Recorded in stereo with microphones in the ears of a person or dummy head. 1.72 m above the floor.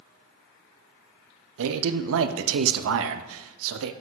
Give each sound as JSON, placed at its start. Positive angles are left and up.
{"t": 1.6, "sound": "a man speaking", "side_deg": -80, "distance_m": 0.6}